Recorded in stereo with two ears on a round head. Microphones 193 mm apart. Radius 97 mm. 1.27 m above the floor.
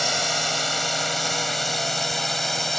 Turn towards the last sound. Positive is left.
turn(degrees=0)  # may be behind; listen again after turning